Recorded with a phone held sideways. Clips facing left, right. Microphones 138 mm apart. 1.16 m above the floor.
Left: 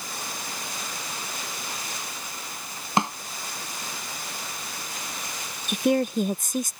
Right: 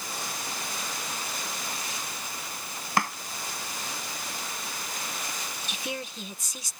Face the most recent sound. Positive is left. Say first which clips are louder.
# left 16 dB
turn(degrees=50)  # may be behind; listen again after turning